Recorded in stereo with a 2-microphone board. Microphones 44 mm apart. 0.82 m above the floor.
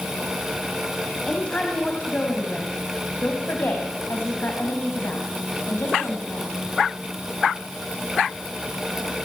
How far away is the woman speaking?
About 5 m.